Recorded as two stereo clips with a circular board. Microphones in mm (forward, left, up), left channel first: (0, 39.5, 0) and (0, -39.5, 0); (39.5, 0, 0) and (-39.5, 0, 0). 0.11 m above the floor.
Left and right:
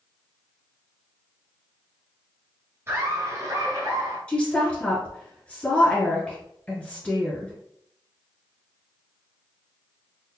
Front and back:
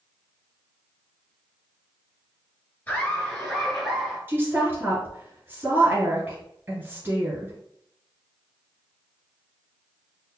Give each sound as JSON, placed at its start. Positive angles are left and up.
{"t": 2.9, "sound": "laughter", "azimuth_deg": -55, "distance_m": 1.5}
{"t": 4.3, "sound": "a woman speaking", "azimuth_deg": 150, "distance_m": 1.5}